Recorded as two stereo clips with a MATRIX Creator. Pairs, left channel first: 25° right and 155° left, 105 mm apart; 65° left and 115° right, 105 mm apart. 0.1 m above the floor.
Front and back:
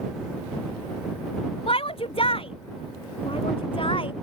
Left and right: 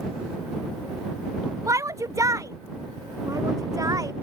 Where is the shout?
50° right; by 4.1 s 55° right.